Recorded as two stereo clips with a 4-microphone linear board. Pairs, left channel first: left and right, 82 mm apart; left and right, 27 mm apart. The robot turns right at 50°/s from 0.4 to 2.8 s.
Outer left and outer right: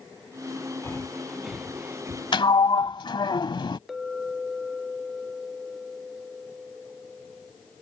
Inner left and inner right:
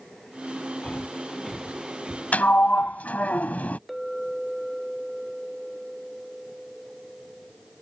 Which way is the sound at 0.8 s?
30° left (ahead or behind).